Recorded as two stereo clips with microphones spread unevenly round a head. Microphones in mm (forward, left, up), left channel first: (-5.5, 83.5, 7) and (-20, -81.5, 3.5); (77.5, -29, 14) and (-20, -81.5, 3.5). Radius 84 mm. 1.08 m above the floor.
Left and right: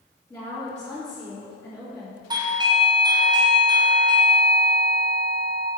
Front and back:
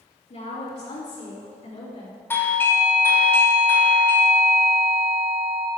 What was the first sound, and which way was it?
A woman speaking, 5° left.